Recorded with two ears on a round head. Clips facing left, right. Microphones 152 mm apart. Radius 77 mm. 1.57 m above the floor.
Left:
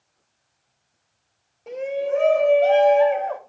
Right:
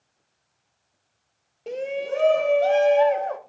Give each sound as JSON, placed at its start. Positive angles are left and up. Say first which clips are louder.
{"t": 1.7, "sound": "a shout", "louder": "left 3 dB", "side_deg": -30, "distance_m": 0.6}